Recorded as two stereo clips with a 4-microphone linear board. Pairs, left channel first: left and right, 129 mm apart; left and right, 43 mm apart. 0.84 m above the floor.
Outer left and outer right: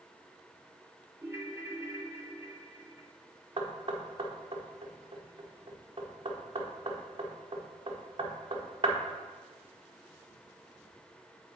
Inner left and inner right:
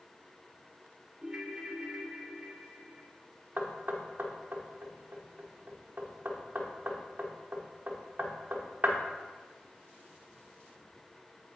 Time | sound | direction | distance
1.2 | a ringtone | 20° right (ahead or behind) | 0.7 m
3.6 | knocking | 40° right (ahead or behind) | 1.2 m